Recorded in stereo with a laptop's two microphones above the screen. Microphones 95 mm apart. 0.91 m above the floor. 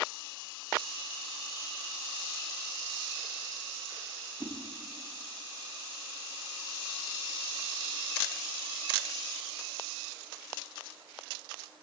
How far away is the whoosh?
About 0.7 m.